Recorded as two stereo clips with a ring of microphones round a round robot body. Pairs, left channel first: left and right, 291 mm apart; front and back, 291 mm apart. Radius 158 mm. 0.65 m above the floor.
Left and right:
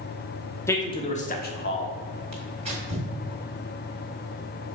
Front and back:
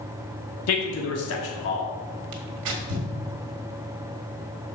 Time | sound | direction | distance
0.7 | a man speaking | 10° left | 1.2 m
2.3 | tearing paper | 160° right | 1.5 m